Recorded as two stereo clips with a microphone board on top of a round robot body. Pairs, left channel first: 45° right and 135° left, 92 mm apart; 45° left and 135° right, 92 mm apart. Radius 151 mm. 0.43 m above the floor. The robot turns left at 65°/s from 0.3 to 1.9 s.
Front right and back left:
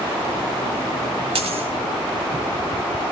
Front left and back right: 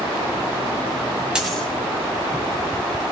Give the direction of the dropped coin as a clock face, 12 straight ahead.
7 o'clock.